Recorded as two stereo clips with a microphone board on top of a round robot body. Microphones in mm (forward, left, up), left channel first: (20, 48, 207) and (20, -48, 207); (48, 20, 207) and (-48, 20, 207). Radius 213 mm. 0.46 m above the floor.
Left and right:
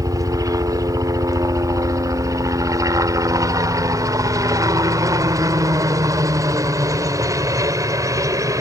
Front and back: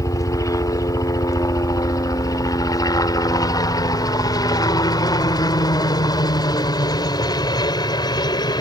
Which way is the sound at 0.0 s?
45° right.